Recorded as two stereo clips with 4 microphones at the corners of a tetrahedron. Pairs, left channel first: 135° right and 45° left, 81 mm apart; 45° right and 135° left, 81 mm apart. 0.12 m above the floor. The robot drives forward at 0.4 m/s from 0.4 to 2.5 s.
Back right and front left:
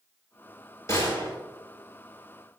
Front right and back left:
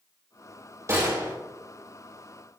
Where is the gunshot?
Straight behind, 3 m.